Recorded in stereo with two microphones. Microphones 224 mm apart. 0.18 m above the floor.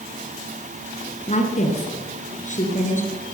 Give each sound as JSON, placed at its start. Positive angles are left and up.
{"t": 1.3, "sound": "a woman speaking", "side_deg": 30, "distance_m": 2.0}